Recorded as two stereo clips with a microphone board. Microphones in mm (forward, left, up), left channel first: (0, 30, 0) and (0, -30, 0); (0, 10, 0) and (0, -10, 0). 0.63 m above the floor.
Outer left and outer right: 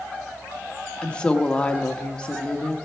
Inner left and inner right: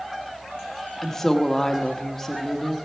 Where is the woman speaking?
20° left (ahead or behind), 0.8 m.